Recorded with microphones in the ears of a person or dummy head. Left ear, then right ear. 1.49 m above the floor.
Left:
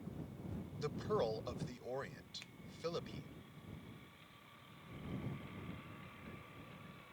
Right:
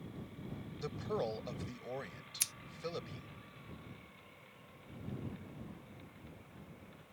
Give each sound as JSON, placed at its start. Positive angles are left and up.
{"t": 0.8, "sound": "a man speaking", "side_deg": 15}
{"t": 2.4, "sound": "scissors", "side_deg": -75}